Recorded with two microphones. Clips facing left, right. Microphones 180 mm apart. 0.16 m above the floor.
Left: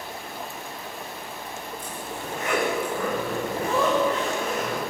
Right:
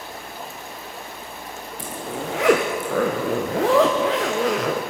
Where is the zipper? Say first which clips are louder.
Right 5 dB; 70° right (ahead or behind), 3.5 m.